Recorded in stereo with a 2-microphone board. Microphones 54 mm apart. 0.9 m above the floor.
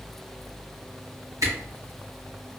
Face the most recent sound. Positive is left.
turn(degrees=-65)  # may be behind; listen again after turning